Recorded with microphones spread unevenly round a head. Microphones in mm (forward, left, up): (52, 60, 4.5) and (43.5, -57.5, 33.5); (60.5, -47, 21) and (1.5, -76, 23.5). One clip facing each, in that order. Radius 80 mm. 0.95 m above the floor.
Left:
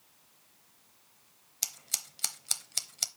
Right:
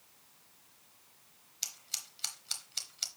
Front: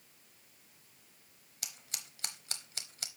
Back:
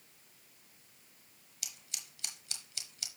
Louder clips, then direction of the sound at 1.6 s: Left 5 dB, front 2 dB; 65° left.